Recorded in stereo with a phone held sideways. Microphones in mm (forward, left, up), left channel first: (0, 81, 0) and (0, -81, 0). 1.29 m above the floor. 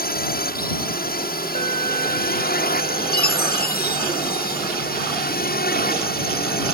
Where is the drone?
65° left (ahead or behind); by 6.7 s 70° left (ahead or behind).